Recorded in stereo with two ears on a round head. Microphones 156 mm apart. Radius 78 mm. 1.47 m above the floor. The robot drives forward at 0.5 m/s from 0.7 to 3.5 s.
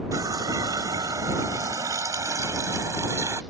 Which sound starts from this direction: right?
A running tap, at 0.1 s.